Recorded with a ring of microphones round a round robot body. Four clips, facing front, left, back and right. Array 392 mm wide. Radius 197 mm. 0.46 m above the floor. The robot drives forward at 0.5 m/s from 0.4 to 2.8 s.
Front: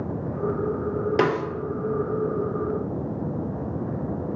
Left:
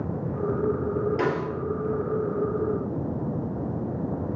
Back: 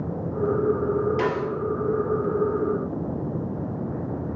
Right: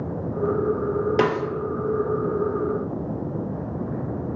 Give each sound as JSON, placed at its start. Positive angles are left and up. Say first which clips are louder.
{"t": 1.2, "sound": "a snare drum", "louder": "right 4 dB, front 3 dB", "azimuth_deg": -50, "distance_m": 0.5}